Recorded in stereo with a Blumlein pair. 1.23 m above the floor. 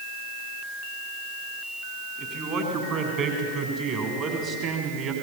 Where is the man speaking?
35° right, 7 m; by 5.1 s 30° right, 5.5 m.